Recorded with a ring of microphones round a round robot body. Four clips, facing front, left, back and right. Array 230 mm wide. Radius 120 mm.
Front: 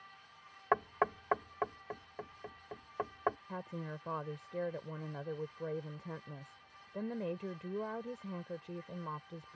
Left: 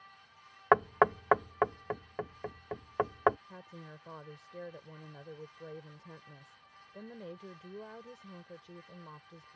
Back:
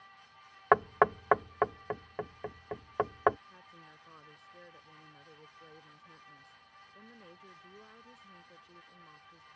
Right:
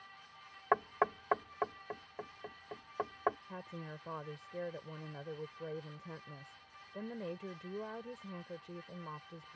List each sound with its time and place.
0.7 s knocking: 135° left
3.5 s a woman speaking: 15° right